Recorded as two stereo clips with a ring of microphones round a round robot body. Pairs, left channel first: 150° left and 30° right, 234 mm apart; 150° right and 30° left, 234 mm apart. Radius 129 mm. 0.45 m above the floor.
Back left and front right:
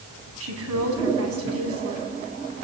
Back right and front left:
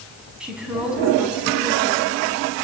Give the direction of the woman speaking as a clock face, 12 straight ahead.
2 o'clock.